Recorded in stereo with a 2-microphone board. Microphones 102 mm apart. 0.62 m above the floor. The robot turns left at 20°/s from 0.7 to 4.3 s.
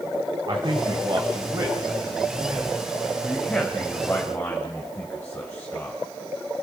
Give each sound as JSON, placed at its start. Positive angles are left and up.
{"t": 0.5, "sound": "a man speaking", "side_deg": -45, "distance_m": 3.0}